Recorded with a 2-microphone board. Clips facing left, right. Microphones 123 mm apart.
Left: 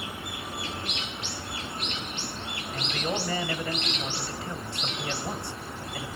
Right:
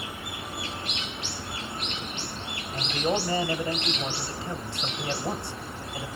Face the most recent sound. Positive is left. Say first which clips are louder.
# right 4 dB
turn(degrees=-25)  # may be behind; listen again after turning